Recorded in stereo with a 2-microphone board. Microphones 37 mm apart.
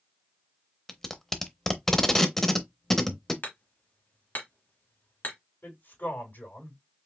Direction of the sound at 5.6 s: 70° left (ahead or behind).